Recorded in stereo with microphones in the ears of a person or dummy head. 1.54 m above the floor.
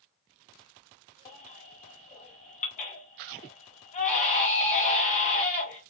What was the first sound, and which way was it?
A baby crying, 40° left (ahead or behind).